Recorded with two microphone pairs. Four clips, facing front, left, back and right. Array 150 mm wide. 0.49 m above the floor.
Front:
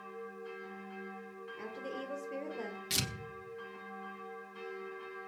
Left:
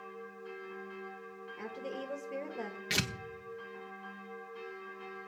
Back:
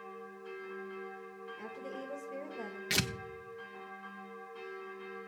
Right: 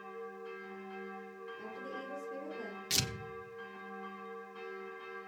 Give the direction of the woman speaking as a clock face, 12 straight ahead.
10 o'clock.